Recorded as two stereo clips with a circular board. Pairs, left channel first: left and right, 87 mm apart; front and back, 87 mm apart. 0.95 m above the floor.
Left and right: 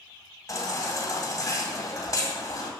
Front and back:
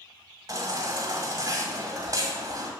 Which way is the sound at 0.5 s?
140° left.